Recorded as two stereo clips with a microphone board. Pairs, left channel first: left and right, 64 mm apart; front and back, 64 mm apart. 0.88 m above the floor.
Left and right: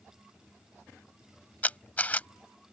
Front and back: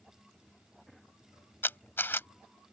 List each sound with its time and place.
1.6 s a camera shutter: 35° left